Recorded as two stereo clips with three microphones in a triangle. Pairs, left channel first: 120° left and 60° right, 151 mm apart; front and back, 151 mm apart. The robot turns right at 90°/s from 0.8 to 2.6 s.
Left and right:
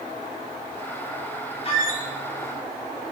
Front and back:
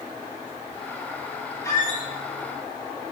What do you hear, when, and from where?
1.6 s a squeak: 70° left, 3 m; by 2.0 s 105° left, 3 m